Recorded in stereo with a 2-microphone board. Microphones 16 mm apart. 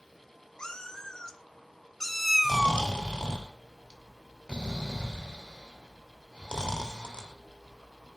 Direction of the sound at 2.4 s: 75° left (ahead or behind).